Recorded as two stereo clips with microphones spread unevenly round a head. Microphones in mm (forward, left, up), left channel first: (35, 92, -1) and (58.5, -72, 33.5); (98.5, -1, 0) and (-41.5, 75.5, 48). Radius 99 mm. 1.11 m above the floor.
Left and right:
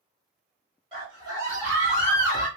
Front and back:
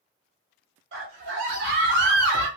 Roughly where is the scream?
Behind right.